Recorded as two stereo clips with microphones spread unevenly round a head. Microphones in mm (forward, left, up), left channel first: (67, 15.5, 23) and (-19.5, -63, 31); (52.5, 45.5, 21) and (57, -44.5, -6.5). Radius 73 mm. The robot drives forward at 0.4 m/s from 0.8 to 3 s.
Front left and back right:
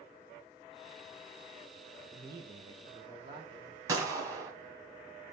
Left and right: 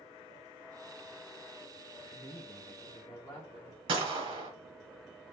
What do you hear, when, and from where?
2.1 s a woman speaking: 170° left, 0.7 m; by 3.8 s 175° left, 1.0 m
3.9 s a gunshot: 100° right, 1.1 m